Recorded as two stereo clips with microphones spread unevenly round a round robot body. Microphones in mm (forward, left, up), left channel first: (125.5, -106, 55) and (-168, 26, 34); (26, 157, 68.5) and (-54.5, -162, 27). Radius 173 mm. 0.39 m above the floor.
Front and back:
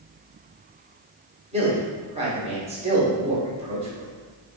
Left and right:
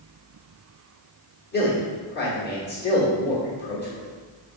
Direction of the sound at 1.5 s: 115° left.